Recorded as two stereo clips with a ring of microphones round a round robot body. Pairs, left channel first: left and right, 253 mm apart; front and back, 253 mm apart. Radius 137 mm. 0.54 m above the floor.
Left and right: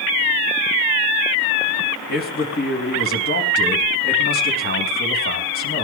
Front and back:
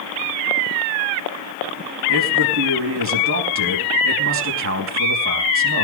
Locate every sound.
2.1 s a man speaking: 145° left, 4.5 m